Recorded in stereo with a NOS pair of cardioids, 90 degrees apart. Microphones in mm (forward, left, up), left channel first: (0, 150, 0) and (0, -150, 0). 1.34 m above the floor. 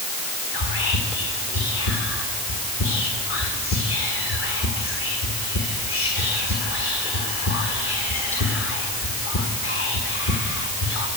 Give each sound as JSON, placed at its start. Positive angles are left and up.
{"t": 0.5, "sound": "whispering", "azimuth_deg": 45, "distance_m": 1.7}